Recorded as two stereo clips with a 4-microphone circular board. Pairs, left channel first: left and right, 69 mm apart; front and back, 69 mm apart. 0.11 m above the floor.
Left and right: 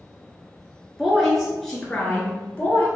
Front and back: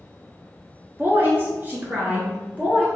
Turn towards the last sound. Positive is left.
turn(degrees=125)